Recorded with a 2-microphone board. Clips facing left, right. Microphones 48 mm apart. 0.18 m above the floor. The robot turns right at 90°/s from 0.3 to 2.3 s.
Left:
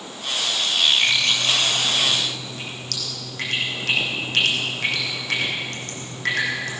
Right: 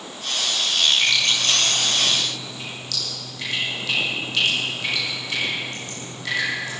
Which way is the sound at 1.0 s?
10° left (ahead or behind).